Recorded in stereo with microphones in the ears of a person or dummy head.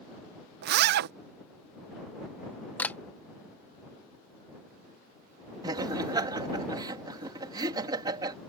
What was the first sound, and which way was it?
A zipper, 55° right (ahead or behind).